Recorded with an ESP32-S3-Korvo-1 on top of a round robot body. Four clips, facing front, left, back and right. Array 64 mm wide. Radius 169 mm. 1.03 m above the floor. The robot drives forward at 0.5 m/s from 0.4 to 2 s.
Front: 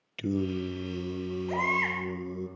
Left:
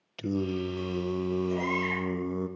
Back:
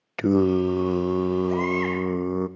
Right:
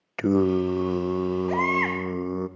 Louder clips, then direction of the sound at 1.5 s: Right 5 dB, back 4 dB; 80° right.